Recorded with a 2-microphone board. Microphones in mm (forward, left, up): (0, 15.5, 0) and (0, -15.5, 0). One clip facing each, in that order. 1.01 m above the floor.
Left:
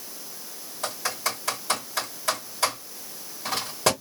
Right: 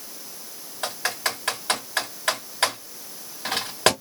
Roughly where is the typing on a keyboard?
Right.